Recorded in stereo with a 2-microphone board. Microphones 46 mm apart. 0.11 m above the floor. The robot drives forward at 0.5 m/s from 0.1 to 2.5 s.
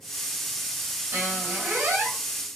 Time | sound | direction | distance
1.1 | a squeak | 50° right (ahead or behind) | 1.9 m